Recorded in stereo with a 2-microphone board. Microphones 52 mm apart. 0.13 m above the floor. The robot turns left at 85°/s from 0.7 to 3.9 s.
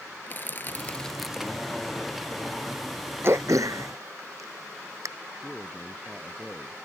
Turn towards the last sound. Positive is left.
turn(degrees=0)  # may be behind; listen again after turning